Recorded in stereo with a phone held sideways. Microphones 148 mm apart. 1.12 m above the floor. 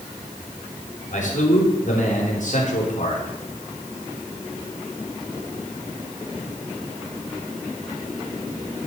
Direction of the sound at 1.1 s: 60° left (ahead or behind).